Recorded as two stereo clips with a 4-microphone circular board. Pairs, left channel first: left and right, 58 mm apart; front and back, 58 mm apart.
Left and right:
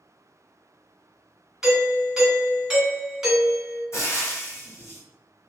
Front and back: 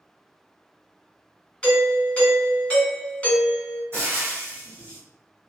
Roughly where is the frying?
Behind left.